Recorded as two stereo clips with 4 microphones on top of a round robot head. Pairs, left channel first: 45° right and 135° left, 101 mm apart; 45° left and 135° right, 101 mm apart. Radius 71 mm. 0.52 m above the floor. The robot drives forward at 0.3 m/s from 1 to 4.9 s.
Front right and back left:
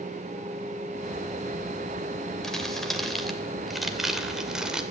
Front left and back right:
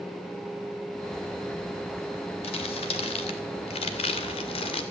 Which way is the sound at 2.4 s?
40° left.